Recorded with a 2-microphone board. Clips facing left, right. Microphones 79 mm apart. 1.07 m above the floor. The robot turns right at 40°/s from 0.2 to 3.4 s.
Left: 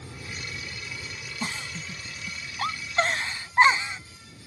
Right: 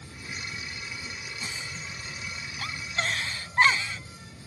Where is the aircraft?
50° left (ahead or behind); by 4.5 s 70° right (ahead or behind).